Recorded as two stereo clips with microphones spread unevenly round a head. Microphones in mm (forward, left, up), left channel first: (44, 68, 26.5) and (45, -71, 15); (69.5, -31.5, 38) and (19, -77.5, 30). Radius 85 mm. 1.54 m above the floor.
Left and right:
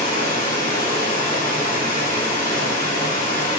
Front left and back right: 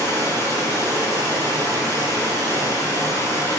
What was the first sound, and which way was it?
Running water, 80° left.